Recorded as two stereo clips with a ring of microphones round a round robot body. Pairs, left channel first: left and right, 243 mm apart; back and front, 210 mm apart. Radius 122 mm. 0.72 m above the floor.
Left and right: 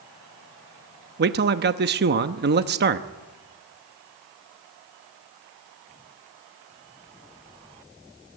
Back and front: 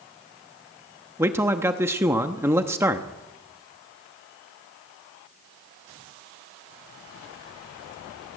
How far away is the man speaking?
About 0.9 m.